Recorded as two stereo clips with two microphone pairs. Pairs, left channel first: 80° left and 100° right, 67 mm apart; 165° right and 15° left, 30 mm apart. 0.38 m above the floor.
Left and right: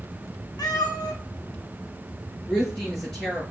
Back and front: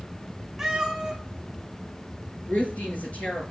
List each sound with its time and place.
0.6 s a cat meowing: 95° left, 2.5 m
2.5 s a woman speaking: 165° left, 5.5 m